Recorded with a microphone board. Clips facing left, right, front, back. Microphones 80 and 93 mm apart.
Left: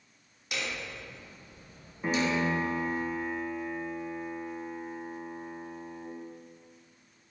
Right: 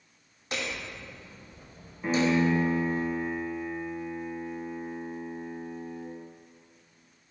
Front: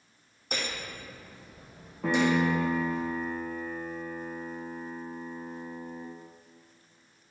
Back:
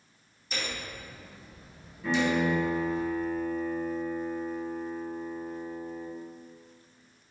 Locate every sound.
0.5 s hammering: 35° right, 2.5 m
2.0 s a piano: 10° left, 3.5 m